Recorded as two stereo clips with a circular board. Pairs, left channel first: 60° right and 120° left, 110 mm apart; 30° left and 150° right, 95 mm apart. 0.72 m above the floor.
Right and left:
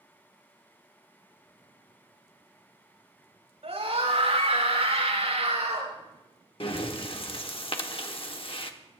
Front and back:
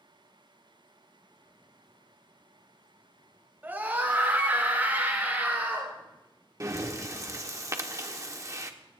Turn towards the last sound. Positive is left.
turn(degrees=-95)